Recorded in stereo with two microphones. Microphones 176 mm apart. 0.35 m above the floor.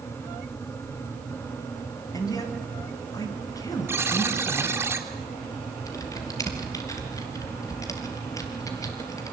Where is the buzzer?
15° right (ahead or behind), 2.5 m.